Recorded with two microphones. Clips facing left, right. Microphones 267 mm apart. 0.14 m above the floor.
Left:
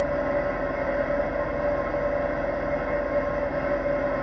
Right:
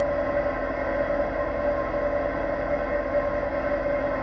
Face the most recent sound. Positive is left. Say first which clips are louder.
# even
turn(degrees=40)  # may be behind; listen again after turning